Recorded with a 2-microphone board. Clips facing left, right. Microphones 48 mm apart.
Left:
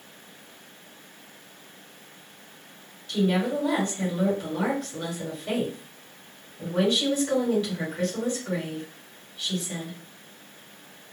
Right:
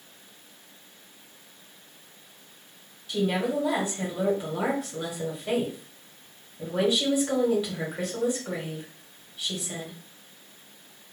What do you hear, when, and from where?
3.1 s a woman speaking: 10° right (ahead or behind), 1.2 m